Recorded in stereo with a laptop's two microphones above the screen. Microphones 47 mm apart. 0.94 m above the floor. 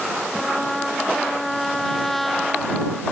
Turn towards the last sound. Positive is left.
turn(degrees=5)  # may be behind; listen again after turning